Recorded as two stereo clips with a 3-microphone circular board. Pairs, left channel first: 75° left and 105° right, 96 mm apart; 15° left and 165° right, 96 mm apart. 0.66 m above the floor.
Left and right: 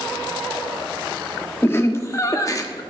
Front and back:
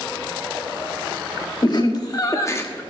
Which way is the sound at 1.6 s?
20° left.